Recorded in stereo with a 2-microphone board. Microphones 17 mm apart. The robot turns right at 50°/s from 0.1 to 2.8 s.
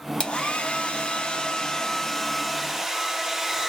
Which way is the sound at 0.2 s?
60° left.